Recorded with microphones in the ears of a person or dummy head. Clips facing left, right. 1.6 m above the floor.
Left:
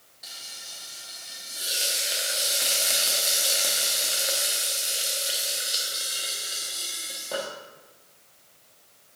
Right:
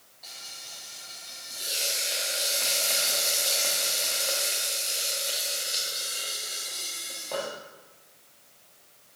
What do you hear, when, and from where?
0.2 s frying: 15° left (ahead or behind), 1.3 m